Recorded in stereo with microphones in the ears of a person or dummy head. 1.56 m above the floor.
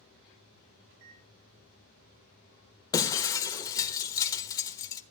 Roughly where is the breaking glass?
Left.